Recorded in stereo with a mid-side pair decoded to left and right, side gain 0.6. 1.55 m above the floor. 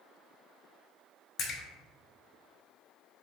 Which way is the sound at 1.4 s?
50° left.